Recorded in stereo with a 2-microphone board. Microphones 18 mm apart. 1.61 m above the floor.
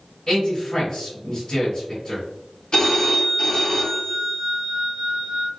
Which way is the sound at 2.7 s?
60° left (ahead or behind).